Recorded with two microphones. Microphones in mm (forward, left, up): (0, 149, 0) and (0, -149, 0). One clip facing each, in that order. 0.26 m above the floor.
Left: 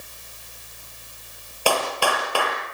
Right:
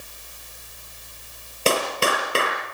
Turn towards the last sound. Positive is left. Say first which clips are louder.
# right 1 dB
turn(degrees=-25)  # may be behind; listen again after turning